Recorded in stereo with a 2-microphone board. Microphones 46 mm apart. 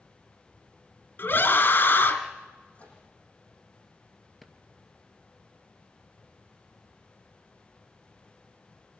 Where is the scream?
50° left (ahead or behind), 2.5 m.